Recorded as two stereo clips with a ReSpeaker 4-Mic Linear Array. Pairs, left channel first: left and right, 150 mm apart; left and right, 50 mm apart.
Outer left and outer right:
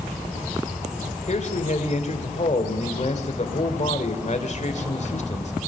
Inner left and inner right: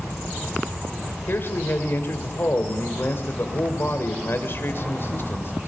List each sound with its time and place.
1.3 s a man speaking: 50° left (ahead or behind), 1.9 m